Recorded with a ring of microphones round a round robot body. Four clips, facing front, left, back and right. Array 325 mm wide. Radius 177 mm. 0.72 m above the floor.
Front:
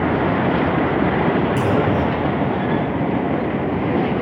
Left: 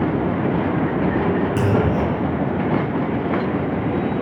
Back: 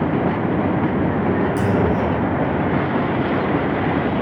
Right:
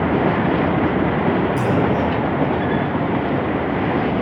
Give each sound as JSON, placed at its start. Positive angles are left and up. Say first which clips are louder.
{"t": 1.6, "sound": "a clunk", "louder": "right 1 dB, front 1 dB", "azimuth_deg": 100, "distance_m": 3.5}